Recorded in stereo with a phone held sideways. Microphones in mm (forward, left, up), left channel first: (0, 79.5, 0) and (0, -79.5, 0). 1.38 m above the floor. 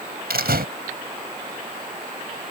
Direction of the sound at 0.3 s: 80° right.